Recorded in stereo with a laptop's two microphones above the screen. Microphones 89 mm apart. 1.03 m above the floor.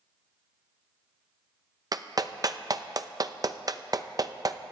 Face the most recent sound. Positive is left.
turn(degrees=-45)  # may be behind; listen again after turning